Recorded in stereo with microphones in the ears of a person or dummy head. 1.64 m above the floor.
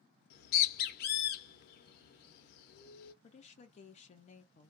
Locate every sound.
0.3 s a bird: 60° left (ahead or behind), 0.9 m
3.2 s a woman speaking: 40° left (ahead or behind), 0.6 m